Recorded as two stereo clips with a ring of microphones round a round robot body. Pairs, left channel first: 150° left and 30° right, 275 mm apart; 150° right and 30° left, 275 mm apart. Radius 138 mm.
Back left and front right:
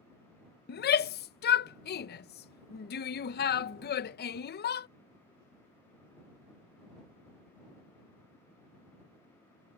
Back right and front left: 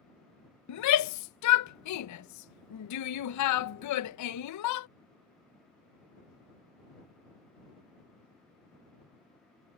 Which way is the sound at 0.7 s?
160° right.